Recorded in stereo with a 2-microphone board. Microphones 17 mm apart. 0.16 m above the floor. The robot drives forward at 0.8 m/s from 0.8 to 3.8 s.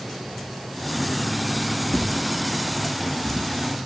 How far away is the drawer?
About 4 m.